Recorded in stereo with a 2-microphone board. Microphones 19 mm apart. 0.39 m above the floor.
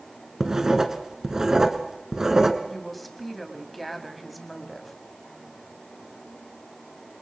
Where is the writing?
30° right (ahead or behind), 1.4 m.